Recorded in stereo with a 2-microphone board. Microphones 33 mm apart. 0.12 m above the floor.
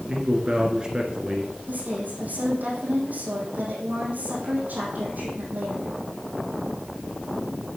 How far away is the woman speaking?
About 4.5 m.